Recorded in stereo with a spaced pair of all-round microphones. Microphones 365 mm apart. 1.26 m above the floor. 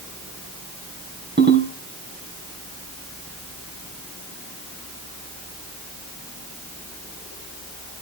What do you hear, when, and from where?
1.4 s a ringtone: 30° right (ahead or behind), 4 m